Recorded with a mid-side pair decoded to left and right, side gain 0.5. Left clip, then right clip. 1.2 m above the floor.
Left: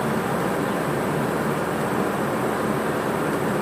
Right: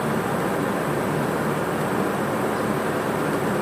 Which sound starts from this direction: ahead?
A fan, at 0.0 s.